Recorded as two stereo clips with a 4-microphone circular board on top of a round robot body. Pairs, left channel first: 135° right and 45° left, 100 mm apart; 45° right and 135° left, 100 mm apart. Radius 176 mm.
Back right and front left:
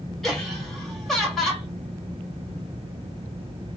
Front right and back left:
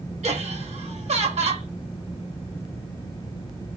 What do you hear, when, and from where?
0.2 s laughter: 140° left, 2 m